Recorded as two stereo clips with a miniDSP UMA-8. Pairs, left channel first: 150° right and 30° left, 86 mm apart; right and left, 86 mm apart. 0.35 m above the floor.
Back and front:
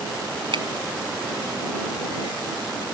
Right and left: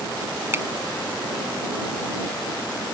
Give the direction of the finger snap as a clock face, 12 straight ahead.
11 o'clock.